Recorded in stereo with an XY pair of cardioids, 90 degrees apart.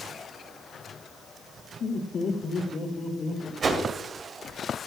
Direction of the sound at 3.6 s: 55° right.